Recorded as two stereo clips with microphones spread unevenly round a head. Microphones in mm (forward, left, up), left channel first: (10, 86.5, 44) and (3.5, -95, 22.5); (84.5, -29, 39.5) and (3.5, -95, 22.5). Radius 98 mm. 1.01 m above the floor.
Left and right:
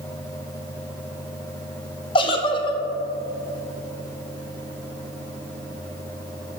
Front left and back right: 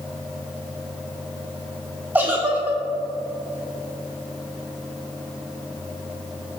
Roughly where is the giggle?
Behind left.